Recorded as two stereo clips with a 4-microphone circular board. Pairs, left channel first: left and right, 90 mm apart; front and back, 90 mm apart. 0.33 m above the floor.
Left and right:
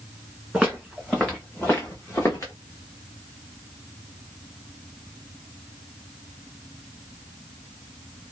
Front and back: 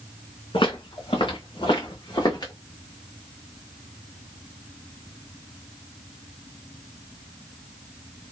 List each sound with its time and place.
0.5 s footsteps: 5° right, 1.5 m; by 2.5 s 40° left, 1.3 m